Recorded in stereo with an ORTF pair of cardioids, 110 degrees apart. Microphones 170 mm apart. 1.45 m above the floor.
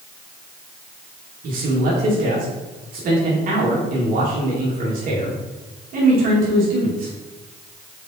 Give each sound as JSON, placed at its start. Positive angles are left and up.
{"t": 1.4, "sound": "a man speaking", "azimuth_deg": -55, "distance_m": 2.5}